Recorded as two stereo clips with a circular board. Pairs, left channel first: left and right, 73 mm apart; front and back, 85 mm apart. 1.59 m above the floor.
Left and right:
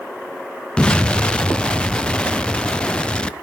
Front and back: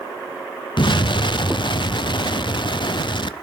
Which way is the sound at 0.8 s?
15° left.